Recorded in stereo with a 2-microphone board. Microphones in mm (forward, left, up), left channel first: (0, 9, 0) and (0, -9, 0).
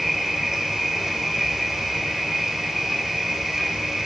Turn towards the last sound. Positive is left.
turn(degrees=-25)  # may be behind; listen again after turning